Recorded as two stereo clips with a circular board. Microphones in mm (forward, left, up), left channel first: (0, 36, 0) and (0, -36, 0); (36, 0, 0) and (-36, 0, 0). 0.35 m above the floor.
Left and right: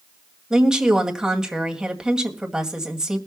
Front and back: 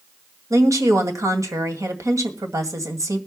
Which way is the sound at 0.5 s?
170° right.